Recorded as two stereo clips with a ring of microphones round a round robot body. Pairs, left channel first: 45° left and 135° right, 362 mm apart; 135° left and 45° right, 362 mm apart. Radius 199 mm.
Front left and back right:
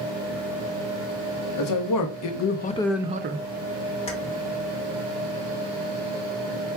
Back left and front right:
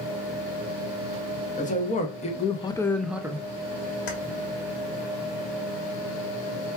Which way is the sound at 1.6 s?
65° left.